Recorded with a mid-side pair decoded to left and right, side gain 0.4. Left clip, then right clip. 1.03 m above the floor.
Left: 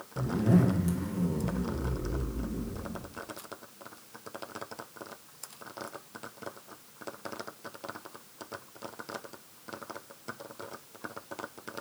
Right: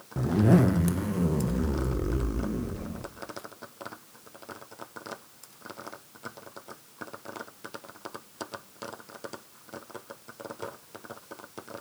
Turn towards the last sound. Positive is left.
turn(degrees=-60)